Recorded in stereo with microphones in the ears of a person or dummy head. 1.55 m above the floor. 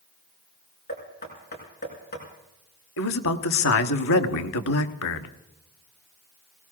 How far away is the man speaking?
About 1.1 m.